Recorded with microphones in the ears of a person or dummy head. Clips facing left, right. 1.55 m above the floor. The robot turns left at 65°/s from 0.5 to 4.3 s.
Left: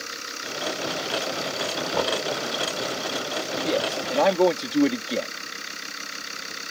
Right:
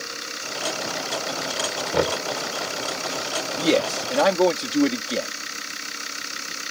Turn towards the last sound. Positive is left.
turn(degrees=175)